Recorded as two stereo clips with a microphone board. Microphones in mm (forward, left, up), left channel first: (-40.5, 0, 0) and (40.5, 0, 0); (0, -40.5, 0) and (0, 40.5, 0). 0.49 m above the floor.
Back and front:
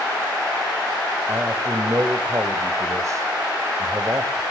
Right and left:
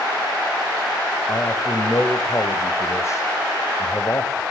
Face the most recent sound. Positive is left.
turn(degrees=-45)